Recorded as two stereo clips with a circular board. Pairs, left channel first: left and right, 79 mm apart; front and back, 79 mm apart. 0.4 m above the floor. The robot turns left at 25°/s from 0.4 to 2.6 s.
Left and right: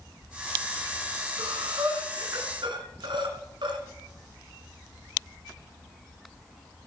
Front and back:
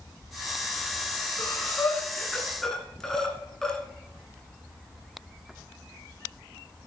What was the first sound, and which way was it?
Breathing, 55° right.